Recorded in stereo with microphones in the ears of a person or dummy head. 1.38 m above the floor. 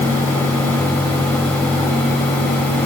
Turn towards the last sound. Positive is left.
No sound to turn to.